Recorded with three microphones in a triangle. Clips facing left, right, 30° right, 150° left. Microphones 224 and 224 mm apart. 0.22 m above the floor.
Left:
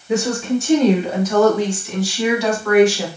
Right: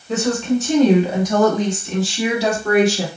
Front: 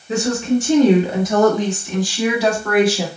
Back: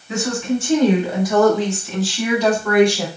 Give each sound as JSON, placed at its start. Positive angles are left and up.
{"t": 0.1, "sound": "a woman speaking", "azimuth_deg": 15, "distance_m": 1.2}